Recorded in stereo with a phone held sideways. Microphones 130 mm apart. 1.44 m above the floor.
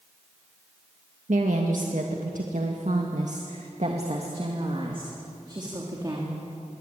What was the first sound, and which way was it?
A woman speaking, 70° right (ahead or behind).